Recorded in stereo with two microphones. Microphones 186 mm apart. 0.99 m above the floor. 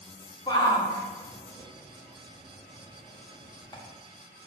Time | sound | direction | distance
0.5 | a shout | 20° left (ahead or behind) | 1.6 m